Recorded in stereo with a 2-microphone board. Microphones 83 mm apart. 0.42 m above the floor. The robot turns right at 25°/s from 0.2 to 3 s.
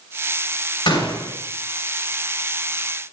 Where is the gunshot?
70° left (ahead or behind), 3.5 m; by 1.3 s 60° left (ahead or behind), 3.5 m.